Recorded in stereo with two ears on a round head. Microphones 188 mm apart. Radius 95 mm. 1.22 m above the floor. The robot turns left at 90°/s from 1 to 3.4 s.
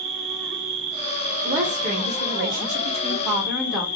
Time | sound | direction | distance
0.0 | an insect | 80° right | 2.5 m
1.4 | a woman speaking | straight ahead | 3 m